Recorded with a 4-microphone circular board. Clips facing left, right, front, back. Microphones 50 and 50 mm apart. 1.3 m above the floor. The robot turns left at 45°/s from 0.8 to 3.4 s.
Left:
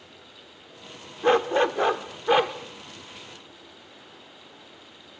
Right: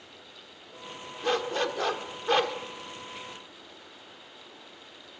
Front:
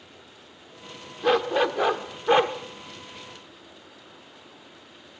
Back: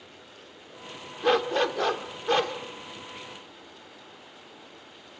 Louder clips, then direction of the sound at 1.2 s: Left 8 dB, front 2 dB; 80° left.